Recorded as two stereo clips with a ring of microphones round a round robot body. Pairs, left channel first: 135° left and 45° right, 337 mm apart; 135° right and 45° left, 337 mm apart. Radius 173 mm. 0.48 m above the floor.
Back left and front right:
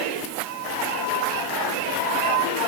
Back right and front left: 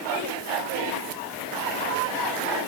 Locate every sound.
Only background noise.